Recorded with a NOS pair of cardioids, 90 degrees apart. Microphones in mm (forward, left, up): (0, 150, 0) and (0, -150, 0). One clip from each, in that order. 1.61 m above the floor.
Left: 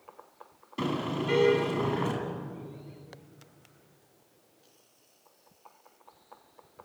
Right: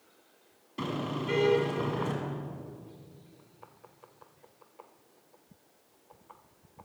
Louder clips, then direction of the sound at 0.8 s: Left 3 dB; 20° left.